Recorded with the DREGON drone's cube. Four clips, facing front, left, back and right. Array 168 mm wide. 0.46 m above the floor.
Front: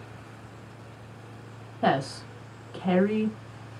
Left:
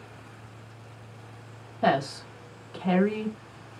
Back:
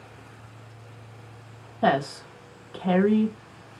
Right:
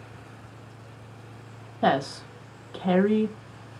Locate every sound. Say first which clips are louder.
1.8 s a woman speaking: right 1 dB, back 2 dB; 125° right, 0.8 m